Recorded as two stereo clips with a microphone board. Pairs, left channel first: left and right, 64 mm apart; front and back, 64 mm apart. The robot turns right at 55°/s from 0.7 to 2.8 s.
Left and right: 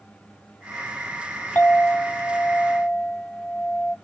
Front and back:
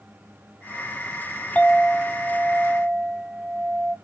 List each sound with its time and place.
1.6 s a clink: 50° left, 0.9 m; by 4.0 s 120° left, 0.9 m